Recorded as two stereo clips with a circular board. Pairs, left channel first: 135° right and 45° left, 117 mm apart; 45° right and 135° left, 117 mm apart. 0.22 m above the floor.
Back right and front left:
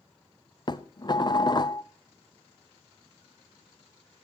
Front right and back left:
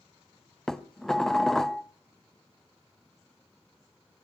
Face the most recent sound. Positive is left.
turn(degrees=-130)